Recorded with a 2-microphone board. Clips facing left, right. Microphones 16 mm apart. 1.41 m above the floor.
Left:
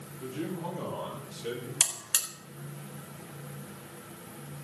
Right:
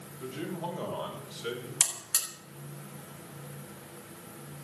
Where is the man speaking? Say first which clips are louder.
Left 1 dB; 50° right (ahead or behind), 8 m; by 1.7 s 45° right (ahead or behind), 7 m.